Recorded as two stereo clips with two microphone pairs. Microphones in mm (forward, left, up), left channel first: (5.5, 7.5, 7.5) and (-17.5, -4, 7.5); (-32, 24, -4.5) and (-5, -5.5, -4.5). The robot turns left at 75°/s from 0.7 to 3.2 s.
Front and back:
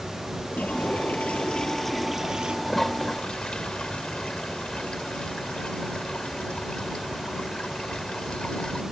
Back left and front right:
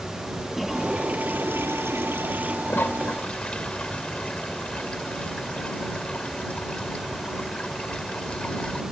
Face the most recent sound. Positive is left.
turn(degrees=75)